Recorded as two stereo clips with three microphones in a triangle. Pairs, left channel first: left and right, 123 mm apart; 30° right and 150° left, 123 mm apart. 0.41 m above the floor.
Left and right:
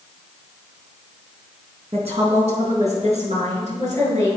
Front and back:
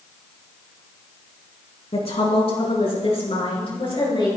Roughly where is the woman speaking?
Ahead right.